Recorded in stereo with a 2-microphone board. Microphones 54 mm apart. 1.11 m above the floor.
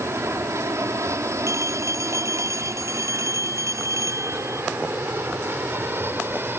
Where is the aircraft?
60° right (ahead or behind); by 6.6 s 40° right (ahead or behind).